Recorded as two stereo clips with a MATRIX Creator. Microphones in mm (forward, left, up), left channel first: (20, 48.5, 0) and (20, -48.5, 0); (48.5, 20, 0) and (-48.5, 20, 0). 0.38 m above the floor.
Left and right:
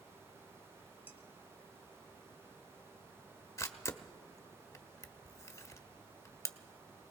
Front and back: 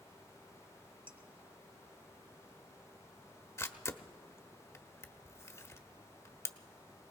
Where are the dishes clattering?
160° right, 1.2 m.